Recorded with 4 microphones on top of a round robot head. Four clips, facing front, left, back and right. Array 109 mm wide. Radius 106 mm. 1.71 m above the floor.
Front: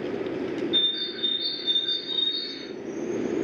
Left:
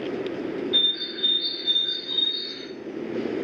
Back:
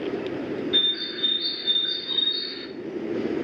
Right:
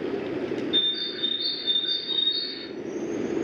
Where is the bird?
170° right, 0.6 m.